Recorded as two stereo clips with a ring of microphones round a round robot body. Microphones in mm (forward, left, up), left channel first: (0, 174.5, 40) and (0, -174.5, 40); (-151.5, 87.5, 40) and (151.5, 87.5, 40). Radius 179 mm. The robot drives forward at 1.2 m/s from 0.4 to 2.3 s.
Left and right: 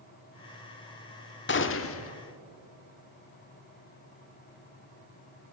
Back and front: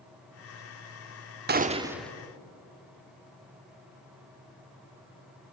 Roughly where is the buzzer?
I don't hear a buzzer.